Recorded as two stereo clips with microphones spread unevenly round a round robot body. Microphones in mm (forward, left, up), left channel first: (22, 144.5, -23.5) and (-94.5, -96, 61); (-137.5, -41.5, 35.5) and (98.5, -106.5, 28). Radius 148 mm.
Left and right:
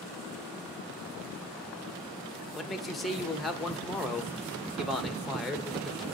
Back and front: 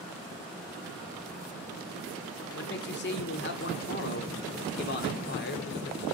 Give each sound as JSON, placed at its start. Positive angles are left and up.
{"t": 2.5, "sound": "a man speaking", "azimuth_deg": 140, "distance_m": 1.7}